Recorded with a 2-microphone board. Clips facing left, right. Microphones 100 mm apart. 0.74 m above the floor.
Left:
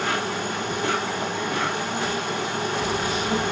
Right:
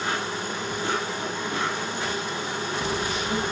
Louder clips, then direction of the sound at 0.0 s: Left 3 dB; 75° left (ahead or behind).